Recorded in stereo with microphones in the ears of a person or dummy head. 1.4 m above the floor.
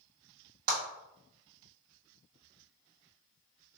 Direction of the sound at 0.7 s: 50° right (ahead or behind).